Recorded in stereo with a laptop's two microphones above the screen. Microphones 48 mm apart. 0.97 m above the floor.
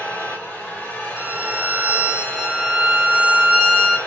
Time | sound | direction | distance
0.0 | a machine running | 30° left (ahead or behind) | 1.0 m
1.2 | a violin | 25° right (ahead or behind) | 1.0 m